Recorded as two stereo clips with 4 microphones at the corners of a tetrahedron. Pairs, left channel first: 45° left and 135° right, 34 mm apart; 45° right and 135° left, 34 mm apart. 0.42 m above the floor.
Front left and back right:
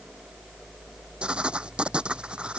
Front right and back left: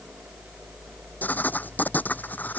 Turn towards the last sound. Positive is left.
turn(degrees=-75)